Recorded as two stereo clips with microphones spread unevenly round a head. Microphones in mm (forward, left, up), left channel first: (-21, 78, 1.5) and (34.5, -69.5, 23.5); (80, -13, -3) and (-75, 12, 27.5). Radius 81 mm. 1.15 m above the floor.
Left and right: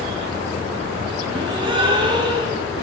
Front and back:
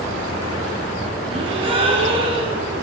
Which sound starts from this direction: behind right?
A gasp, at 1.3 s.